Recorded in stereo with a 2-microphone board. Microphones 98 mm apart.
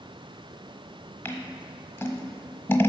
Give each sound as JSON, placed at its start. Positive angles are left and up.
{"t": 1.2, "sound": "scissors", "side_deg": 25, "distance_m": 1.0}